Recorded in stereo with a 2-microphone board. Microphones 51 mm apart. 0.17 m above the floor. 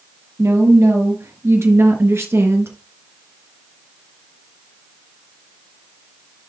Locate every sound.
0.4 s a woman speaking: 70° right (ahead or behind), 3.5 m; by 2.7 s 55° right (ahead or behind), 2.5 m